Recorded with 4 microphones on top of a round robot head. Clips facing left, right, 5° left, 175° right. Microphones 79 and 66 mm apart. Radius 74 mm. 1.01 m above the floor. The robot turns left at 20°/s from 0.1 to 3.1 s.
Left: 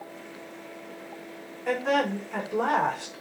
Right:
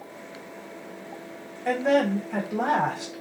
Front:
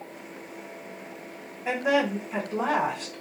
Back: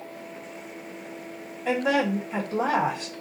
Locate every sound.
1.6 s a woman speaking: 70° right, 1.5 m; by 3.2 s 100° right, 1.5 m